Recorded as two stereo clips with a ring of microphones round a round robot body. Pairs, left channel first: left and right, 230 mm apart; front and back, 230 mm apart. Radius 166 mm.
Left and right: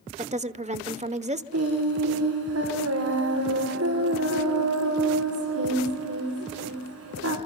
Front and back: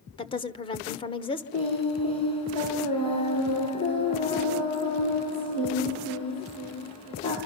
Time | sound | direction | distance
0.2 | a woman speaking | 55° right | 1.4 m
1.5 | singing | 75° right | 7.5 m